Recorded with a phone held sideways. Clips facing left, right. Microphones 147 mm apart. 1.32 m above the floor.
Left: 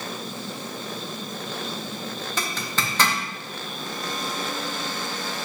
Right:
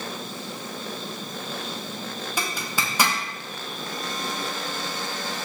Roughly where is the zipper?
Centre.